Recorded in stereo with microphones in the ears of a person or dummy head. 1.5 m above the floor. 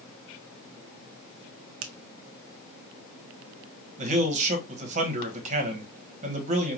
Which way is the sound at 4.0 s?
40° right (ahead or behind).